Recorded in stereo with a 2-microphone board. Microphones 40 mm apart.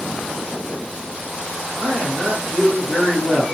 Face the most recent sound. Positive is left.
turn(degrees=-15)  # may be behind; listen again after turning